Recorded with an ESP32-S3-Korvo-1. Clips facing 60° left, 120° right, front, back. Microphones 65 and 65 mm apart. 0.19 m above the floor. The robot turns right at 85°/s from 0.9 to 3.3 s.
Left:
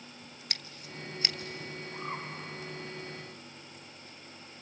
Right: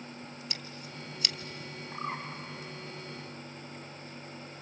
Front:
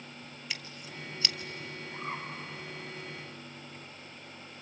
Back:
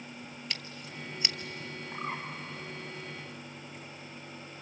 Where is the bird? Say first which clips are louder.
Right 3 dB, back 2 dB; 170° right, 7.5 m; by 2.2 s 145° right, 7.5 m.